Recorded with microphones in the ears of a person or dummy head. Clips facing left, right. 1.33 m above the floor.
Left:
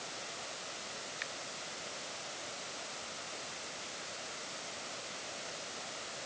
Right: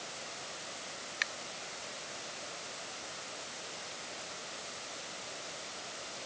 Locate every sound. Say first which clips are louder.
1.2 s a finger snap: right 1 dB; 70° right (ahead or behind)